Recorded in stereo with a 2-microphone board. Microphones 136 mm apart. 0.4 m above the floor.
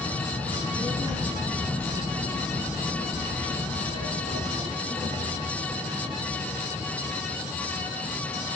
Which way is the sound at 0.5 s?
20° right (ahead or behind).